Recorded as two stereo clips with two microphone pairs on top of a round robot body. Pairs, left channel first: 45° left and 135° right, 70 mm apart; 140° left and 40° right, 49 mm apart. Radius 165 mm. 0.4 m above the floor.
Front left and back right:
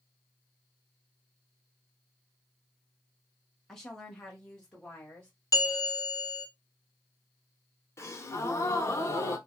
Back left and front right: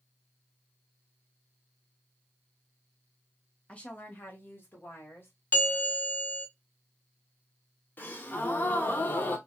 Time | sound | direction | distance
3.7 | a woman speaking | 135° left | 1.0 m
5.5 | a bell | 90° left | 1.1 m
8.0 | a gasp | 95° left | 0.6 m